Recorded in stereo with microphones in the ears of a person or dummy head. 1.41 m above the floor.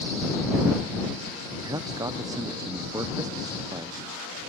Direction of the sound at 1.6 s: 25° right (ahead or behind).